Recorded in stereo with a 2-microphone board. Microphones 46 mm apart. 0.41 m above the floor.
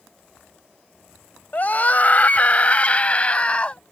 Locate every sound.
1.5 s a scream: 40° left (ahead or behind); by 3.8 s 25° left (ahead or behind)